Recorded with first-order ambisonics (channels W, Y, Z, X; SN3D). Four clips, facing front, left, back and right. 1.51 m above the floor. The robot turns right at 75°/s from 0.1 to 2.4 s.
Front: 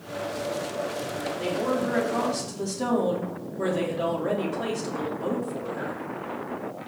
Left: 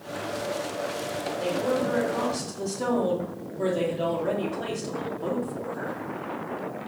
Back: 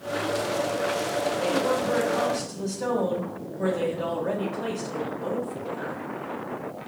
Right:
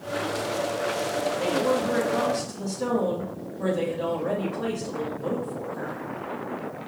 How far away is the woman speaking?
About 3 m.